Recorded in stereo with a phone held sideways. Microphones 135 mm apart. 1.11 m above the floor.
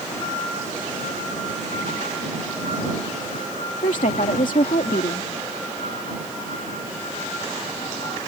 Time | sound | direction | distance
3.8 | a woman speaking | 75° left (ahead or behind) | ?